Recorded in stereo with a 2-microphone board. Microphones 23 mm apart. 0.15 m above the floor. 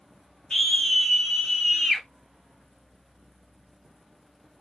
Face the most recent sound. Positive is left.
turn(degrees=30)  # may be behind; listen again after turning